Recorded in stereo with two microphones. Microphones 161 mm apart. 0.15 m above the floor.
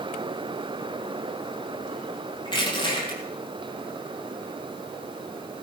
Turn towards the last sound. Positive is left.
turn(degrees=30)  # may be behind; listen again after turning